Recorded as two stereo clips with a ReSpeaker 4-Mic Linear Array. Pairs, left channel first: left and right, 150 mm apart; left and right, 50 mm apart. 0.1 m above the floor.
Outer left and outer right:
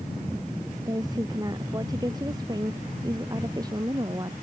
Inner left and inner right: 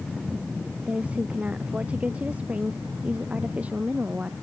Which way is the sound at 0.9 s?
25° right (ahead or behind).